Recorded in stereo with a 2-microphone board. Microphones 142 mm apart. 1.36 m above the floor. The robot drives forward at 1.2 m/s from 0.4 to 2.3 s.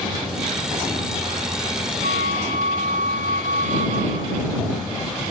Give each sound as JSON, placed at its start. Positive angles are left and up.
{"t": 2.0, "sound": "a flute", "side_deg": -65}